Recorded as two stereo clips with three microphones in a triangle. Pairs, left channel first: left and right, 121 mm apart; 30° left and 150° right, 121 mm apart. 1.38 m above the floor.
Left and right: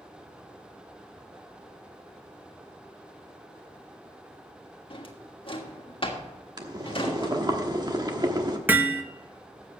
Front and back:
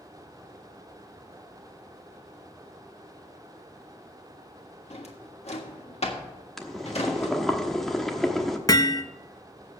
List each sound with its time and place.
4.9 s a drawer: 50° left, 1.6 m
6.6 s boiling: 55° right, 1.1 m
8.7 s hammering: 20° right, 0.8 m